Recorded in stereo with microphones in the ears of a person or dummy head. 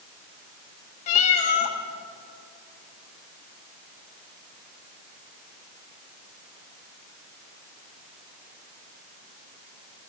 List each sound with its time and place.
1.1 s a cat meowing: 40° left (ahead or behind), 0.7 m